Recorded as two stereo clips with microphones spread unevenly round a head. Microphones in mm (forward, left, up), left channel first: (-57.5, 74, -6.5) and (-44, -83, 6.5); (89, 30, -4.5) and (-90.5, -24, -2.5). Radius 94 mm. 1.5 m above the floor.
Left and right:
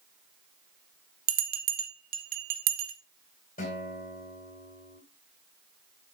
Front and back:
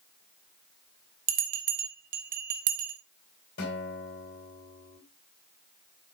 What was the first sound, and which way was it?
A bell, 115° right.